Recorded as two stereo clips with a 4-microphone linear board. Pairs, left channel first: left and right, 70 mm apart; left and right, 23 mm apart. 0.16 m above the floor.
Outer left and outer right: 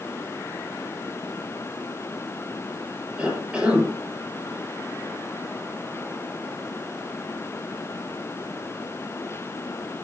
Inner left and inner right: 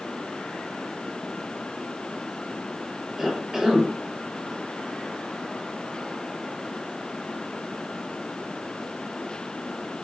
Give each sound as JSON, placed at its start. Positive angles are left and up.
{"t": 3.2, "sound": "a cough", "side_deg": -15, "distance_m": 7.0}